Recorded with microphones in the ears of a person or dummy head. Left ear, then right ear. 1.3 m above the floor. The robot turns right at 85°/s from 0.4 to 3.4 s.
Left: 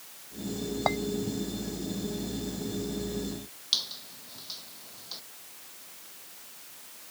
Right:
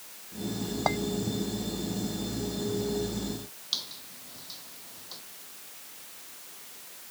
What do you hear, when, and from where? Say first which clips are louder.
0.9 s a clink: even; 10° left (ahead or behind); by 1.0 s centre (ahead or behind)
3.7 s a squeak: left 4 dB; 15° left (ahead or behind)